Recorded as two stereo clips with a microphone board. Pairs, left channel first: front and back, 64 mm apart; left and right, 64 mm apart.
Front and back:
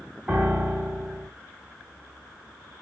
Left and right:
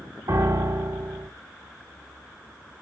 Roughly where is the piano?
Right.